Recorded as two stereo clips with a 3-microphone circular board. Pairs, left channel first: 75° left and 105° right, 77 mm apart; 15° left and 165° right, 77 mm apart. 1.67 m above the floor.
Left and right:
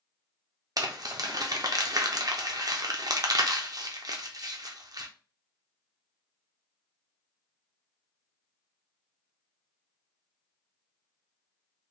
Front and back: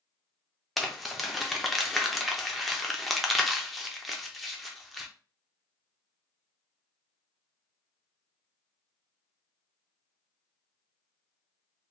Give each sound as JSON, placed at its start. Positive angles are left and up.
{"t": 0.8, "sound": "crumpling", "azimuth_deg": -75, "distance_m": 0.6}